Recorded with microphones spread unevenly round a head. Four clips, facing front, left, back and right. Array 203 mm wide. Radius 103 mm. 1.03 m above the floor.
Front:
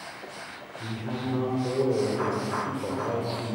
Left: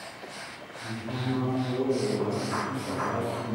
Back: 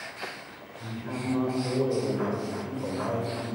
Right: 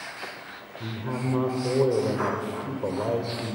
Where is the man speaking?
75° right, 3.5 m.